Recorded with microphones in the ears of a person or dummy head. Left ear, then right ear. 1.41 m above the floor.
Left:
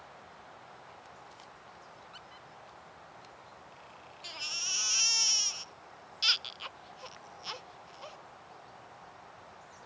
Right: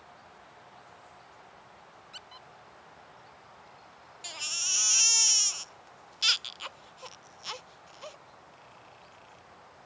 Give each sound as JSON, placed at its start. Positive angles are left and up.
{"t": 2.1, "sound": "a squeak", "side_deg": -20}
{"t": 4.2, "sound": "a baby crying", "side_deg": -15}